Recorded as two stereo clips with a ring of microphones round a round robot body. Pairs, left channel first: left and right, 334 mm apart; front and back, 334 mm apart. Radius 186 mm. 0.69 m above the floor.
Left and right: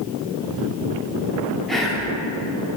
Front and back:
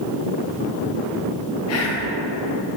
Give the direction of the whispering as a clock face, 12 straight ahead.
12 o'clock.